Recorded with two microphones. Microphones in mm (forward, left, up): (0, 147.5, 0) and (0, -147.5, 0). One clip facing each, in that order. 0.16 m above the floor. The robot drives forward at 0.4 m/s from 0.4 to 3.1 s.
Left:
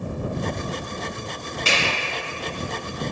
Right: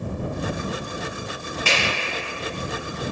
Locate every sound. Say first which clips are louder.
1.6 s a finger snap: even; 25° left (ahead or behind), 1.5 m